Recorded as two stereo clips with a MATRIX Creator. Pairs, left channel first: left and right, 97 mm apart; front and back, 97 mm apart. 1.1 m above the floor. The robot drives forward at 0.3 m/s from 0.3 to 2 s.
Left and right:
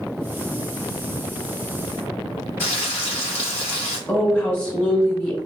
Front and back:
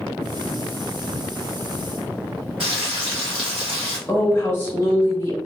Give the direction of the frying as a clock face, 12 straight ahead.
7 o'clock.